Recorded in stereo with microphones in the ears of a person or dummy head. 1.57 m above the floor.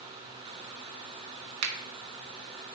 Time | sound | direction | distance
1.6 | a finger snap | 85° right | 1.5 m